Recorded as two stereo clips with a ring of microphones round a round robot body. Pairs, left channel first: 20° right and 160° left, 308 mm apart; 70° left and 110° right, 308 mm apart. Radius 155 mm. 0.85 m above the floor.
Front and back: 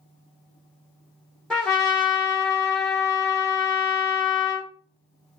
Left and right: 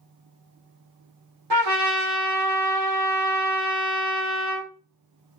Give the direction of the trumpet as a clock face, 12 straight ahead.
4 o'clock.